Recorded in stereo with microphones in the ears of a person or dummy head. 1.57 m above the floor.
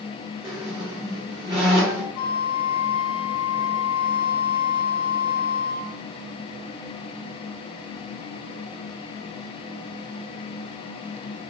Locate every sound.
0.4 s a squeak: 10° right (ahead or behind), 2 m
2.1 s a flute: 75° left (ahead or behind), 0.9 m